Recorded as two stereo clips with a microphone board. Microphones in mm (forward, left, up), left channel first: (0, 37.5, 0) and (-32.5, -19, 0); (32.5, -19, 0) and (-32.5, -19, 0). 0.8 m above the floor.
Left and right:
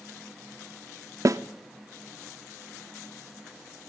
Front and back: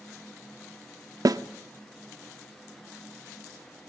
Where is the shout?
No shout in this recording.